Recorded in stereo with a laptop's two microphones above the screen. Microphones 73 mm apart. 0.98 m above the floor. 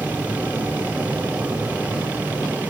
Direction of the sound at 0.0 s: 20° right (ahead or behind).